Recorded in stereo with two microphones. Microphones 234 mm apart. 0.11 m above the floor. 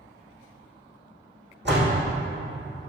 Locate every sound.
1.6 s a door slam: 50° right (ahead or behind), 4.5 m